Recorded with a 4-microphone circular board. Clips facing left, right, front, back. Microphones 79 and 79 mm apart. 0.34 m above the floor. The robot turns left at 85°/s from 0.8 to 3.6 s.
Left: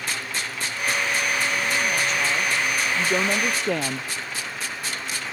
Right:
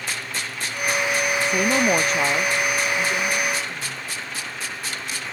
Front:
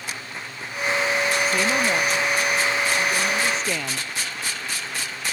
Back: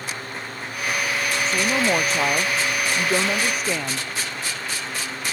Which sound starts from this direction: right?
A woman speaking, at 1.4 s.